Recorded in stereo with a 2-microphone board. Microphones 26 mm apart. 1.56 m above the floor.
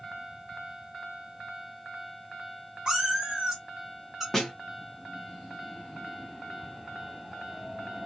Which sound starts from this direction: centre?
A snare drum, at 4.3 s.